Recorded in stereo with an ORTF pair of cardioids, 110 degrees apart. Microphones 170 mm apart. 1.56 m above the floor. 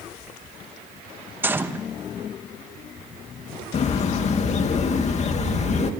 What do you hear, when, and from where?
1.4 s a gunshot: 10° right, 1.4 m
3.7 s a bird: 40° left, 2.5 m